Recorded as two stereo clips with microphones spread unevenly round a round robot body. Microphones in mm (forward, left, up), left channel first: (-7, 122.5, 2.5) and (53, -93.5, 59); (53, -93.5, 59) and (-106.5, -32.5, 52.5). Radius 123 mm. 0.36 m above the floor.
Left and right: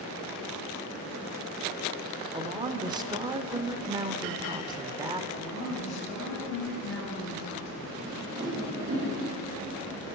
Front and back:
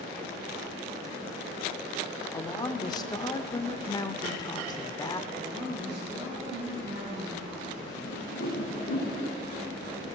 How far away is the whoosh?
About 7 m.